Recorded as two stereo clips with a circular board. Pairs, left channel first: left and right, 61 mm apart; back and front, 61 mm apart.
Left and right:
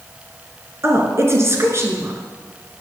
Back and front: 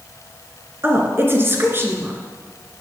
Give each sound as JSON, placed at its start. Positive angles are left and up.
{"t": 0.8, "sound": "a woman speaking", "azimuth_deg": -50, "distance_m": 2.5}